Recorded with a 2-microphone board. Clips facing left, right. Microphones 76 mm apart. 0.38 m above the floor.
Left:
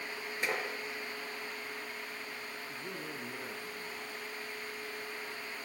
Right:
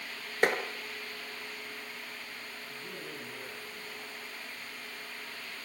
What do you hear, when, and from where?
0.4 s tapping: 55° right (ahead or behind), 4.5 m
2.7 s a man speaking: 20° left (ahead or behind), 5 m